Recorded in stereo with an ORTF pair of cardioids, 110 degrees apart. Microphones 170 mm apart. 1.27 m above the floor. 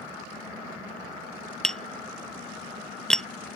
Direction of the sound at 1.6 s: 5° left.